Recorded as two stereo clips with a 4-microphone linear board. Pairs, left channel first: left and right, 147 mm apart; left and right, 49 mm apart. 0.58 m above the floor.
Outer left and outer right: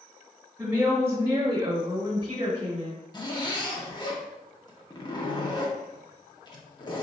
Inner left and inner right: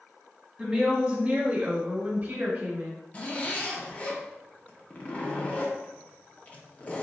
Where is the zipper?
30° left (ahead or behind), 0.6 m.